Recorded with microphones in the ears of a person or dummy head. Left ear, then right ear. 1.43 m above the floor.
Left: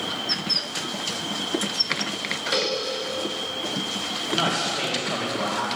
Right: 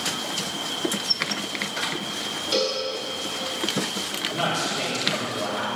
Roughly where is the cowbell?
Centre.